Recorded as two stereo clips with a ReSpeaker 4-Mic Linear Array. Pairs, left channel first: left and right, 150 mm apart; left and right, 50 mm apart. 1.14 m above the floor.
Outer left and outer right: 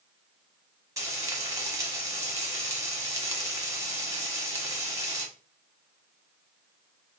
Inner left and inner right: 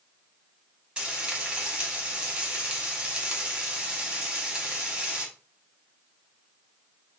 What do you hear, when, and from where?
1.0 s frying: 20° right (ahead or behind), 1.1 m